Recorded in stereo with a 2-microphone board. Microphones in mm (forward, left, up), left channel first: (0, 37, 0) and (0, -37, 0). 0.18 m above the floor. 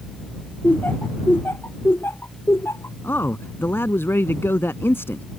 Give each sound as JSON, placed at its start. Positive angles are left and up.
{"t": 0.6, "sound": "laughter", "side_deg": 25}
{"t": 3.0, "sound": "a man speaking", "side_deg": 35}